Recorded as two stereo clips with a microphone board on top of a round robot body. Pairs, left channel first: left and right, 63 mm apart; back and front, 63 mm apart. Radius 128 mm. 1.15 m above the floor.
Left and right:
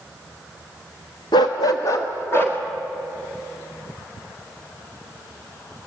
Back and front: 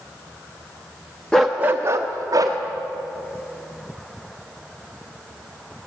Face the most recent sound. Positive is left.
turn(degrees=35)